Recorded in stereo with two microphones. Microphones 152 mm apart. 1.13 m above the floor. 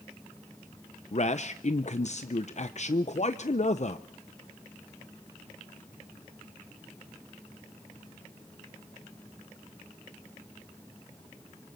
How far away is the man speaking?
About 0.6 m.